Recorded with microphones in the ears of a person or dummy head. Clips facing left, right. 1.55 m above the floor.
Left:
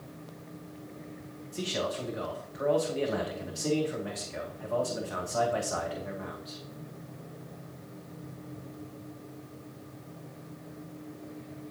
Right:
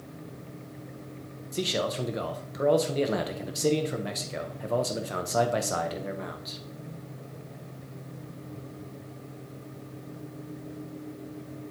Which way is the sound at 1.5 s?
55° right (ahead or behind).